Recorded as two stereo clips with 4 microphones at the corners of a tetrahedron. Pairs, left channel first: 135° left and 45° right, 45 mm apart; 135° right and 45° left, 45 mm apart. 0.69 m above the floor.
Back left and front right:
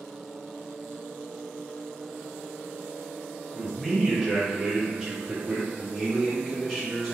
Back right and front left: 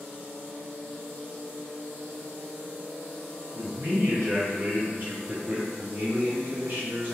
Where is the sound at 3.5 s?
50° left, 1.4 m; by 5.7 s 5° right, 0.6 m.